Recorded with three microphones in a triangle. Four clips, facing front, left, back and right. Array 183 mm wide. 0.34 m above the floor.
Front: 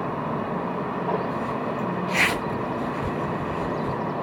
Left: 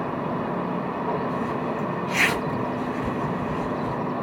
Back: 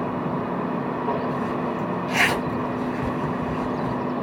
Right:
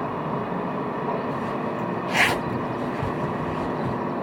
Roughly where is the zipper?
Right.